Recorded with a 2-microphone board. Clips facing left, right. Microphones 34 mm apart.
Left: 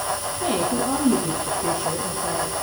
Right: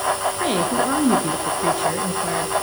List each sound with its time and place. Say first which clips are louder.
0.4 s a woman speaking: even; 60° right (ahead or behind), 3 m